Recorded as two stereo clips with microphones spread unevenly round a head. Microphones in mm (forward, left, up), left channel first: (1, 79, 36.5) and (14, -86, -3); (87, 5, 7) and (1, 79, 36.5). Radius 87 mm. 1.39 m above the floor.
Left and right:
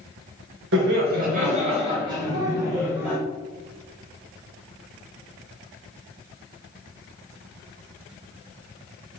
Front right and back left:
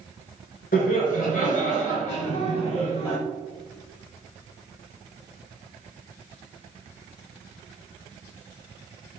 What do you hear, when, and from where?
0.7 s laughter: 65° right, 0.8 m; by 3.2 s 5° right, 1.8 m